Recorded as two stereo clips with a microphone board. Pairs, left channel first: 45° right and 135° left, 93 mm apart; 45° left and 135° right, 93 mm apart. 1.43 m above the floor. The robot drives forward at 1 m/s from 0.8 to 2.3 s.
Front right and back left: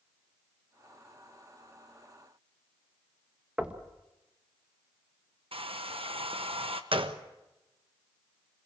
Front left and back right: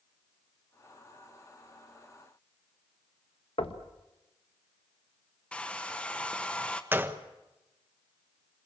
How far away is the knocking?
About 1.5 m.